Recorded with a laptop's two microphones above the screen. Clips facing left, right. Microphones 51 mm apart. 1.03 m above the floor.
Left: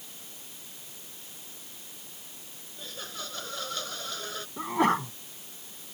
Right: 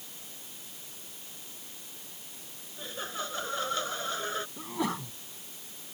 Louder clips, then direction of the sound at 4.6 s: Left 13 dB; 50° left (ahead or behind).